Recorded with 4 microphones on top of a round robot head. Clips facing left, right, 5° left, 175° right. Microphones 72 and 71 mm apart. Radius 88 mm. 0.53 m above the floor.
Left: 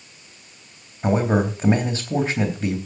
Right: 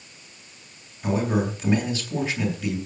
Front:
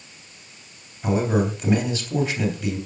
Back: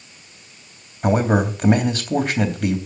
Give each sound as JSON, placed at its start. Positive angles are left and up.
{"t": 1.0, "sound": "a man speaking", "azimuth_deg": 145, "distance_m": 3.0}